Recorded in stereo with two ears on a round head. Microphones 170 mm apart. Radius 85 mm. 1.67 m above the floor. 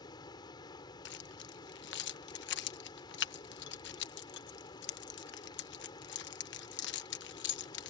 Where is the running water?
25° left (ahead or behind).